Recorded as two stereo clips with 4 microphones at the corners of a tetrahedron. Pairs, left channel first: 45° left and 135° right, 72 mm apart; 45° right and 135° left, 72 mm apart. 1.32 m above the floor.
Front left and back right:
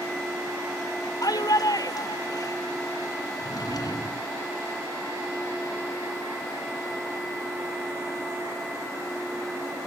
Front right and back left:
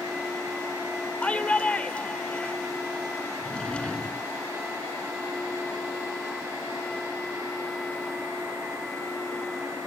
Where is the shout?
25° left.